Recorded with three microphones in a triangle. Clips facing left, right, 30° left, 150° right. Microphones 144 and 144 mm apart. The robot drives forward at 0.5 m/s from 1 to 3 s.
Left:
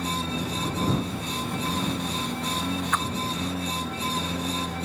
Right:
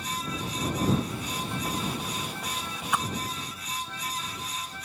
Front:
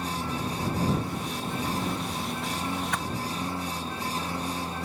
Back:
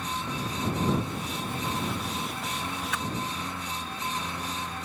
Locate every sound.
0.0 s a lawn mower: 90° left; by 4.8 s 95° left
2.9 s a whoosh: 10° right